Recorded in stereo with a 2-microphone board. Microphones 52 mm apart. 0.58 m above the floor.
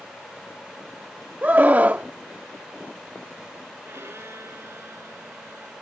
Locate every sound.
1.4 s a scream: 35° right (ahead or behind)
3.9 s a violin: 60° right (ahead or behind)